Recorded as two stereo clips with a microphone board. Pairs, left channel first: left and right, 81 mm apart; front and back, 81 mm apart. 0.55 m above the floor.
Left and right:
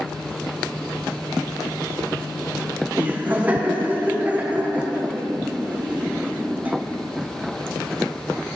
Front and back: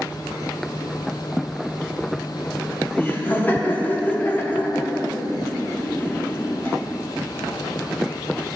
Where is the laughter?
40° right, 0.9 m.